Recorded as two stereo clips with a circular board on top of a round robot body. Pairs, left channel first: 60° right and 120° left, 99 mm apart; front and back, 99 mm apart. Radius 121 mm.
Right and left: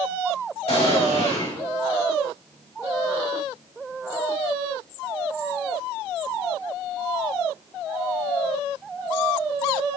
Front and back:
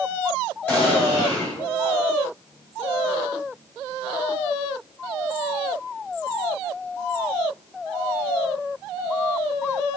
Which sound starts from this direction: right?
An explosion, at 0.7 s.